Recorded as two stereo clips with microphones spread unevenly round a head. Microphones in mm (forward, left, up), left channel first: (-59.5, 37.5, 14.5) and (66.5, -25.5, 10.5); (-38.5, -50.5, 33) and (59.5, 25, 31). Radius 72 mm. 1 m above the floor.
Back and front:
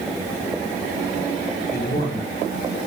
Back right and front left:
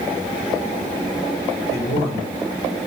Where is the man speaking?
175° right, 3.5 m.